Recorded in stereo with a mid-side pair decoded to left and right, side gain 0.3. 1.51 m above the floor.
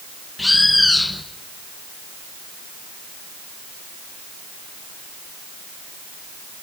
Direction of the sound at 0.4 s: 20° left.